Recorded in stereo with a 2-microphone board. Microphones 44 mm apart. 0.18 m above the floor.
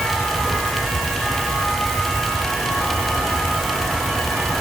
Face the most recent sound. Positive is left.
No sound to turn to.